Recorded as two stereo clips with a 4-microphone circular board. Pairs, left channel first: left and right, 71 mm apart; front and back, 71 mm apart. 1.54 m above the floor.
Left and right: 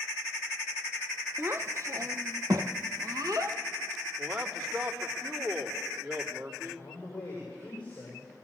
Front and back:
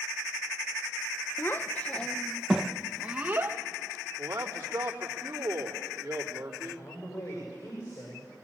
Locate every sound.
1.4 s a child speaking: 45° right, 0.8 m; by 3.6 s 120° right, 1.2 m
4.2 s a man speaking: 130° right, 3 m
6.6 s a man speaking: 30° left, 7.5 m